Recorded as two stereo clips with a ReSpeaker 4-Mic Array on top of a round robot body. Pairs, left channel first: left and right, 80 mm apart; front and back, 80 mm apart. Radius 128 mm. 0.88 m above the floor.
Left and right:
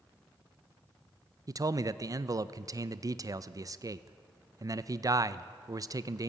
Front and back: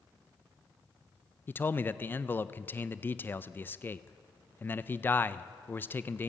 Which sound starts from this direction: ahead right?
A man speaking, at 1.5 s.